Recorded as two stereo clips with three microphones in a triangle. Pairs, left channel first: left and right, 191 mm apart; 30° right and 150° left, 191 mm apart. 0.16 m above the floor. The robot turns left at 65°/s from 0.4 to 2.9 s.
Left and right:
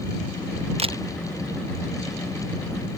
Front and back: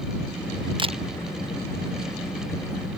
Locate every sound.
0.8 s a camera shutter: 145° right; by 1.0 s 160° right